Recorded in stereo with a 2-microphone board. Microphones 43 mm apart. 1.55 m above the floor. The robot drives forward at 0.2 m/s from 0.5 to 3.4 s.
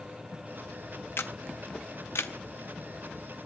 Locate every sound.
1.2 s a camera shutter: 65° left (ahead or behind), 0.6 m; by 2.3 s 90° left, 0.5 m